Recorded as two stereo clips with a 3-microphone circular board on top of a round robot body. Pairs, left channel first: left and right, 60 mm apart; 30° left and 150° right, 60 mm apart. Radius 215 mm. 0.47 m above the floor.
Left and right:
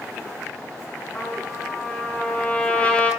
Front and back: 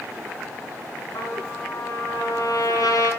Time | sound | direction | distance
1.1 | a trumpet | 25° left | 6 m